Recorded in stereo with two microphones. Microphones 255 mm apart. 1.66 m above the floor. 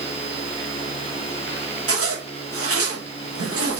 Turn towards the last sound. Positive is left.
turn(degrees=-60)  # may be behind; listen again after turning